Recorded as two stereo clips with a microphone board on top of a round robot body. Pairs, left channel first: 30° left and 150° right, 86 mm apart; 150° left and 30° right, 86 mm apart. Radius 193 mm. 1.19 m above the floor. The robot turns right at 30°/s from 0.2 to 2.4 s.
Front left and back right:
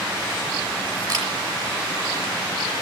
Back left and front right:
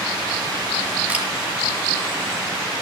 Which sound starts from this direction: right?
A camera shutter, at 1.1 s.